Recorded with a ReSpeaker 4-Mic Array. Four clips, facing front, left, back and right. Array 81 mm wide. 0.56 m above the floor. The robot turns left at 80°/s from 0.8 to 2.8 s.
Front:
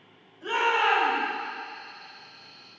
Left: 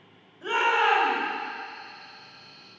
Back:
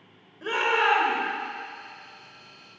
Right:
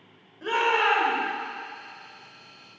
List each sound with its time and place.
0.4 s a shout: 140° right, 2.5 m; by 1.2 s 170° right, 2.5 m